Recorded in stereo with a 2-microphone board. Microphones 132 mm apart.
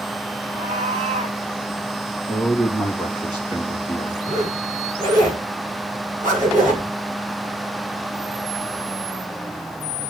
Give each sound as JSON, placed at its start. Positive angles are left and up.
{"t": 0.5, "sound": "a cat meowing", "side_deg": -75, "distance_m": 4.5}
{"t": 2.3, "sound": "a man speaking", "side_deg": -35, "distance_m": 3.0}
{"t": 4.2, "sound": "a zipper", "side_deg": -80, "distance_m": 9.0}